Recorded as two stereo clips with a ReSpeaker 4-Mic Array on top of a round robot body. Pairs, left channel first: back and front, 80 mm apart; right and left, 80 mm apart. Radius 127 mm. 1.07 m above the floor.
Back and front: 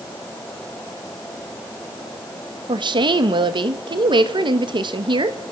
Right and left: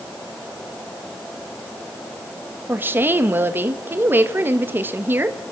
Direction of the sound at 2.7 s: 25° left.